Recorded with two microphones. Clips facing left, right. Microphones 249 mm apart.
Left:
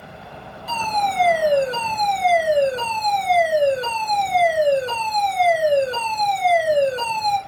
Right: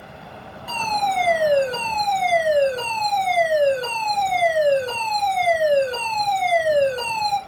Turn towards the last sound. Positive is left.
turn(degrees=40)  # may be behind; listen again after turning